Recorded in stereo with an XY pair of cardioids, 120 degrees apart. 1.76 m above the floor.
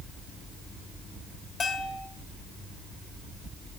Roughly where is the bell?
Ahead left.